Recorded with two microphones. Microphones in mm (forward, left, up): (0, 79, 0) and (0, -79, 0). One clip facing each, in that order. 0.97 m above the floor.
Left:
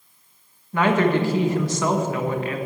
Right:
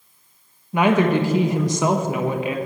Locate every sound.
0.7 s a woman speaking: 15° right (ahead or behind), 1.0 m